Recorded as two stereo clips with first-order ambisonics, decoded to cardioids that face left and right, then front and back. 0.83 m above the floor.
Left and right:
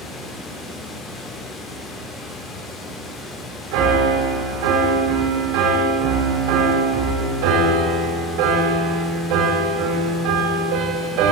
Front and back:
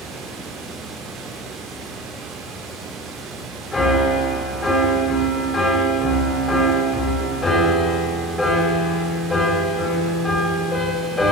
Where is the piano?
80° right, 3 m.